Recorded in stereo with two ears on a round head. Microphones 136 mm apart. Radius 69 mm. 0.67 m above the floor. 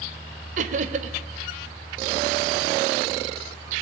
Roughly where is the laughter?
Right.